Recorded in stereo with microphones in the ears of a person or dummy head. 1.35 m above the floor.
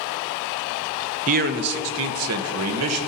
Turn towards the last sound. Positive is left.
turn(degrees=-75)  # may be behind; listen again after turning